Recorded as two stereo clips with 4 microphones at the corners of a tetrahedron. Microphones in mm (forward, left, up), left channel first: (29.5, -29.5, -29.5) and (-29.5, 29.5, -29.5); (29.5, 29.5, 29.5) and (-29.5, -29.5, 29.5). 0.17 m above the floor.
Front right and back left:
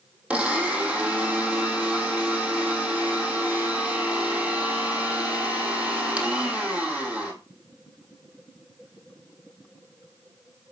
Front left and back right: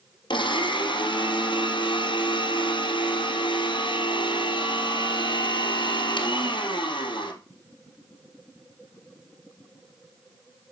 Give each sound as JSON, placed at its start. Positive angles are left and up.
{"t": 0.3, "sound": "a blender", "azimuth_deg": 60, "distance_m": 2.5}